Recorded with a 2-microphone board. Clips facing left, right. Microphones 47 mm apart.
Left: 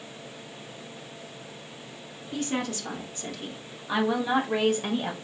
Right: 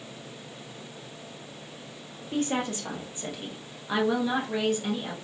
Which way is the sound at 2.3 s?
35° right (ahead or behind).